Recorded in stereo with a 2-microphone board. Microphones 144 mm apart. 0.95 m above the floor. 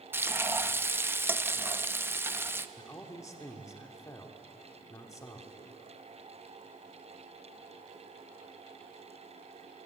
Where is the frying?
15° right (ahead or behind), 0.5 m.